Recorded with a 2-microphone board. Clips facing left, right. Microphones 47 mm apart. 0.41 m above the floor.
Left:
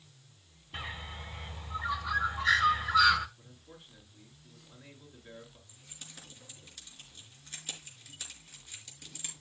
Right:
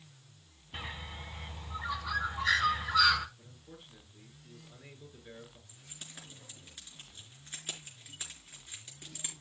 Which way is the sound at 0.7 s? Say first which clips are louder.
Left 1 dB; 5° left (ahead or behind).